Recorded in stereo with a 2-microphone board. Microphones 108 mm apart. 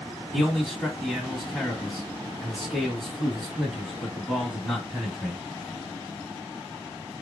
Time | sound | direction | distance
0.3 | a man speaking | centre (ahead or behind) | 1.7 m